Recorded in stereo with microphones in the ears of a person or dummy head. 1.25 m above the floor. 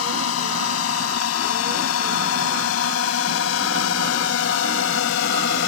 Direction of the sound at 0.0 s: 85° left.